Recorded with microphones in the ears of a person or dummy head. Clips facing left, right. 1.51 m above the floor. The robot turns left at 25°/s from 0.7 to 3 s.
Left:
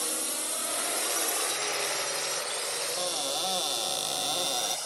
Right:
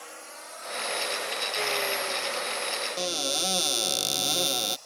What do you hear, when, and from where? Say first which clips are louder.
0.0 s a drone: left 8 dB; 55° left (ahead or behind); by 4.9 s 85° left
3.0 s a cupboard door: right 3 dB; 30° right (ahead or behind)